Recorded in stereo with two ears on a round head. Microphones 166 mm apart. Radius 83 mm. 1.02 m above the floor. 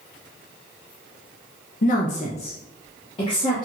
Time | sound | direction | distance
1.8 | a woman speaking | 45° left (ahead or behind) | 0.6 m